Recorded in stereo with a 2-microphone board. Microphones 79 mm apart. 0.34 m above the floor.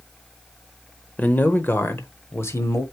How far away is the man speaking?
About 1.1 m.